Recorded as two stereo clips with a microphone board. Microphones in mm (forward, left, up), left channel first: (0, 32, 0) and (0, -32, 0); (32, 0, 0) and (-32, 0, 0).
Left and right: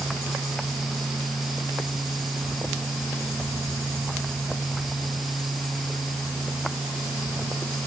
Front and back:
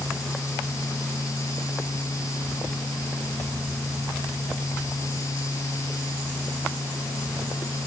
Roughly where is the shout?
I don't hear a shout.